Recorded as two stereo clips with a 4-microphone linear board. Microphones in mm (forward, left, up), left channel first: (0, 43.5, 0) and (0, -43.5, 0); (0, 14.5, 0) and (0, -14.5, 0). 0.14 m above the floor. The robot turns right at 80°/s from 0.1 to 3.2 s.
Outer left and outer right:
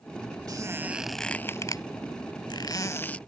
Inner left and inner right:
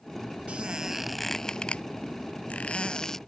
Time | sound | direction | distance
0.5 | a squeak | 50° right | ?